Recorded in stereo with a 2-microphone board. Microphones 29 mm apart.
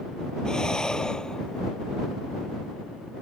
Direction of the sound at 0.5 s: 25° left (ahead or behind).